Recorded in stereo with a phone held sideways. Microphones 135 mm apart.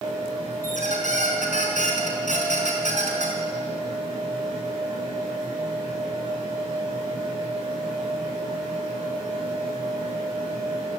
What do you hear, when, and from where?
0.6 s a squeak: 75° left (ahead or behind), 5 m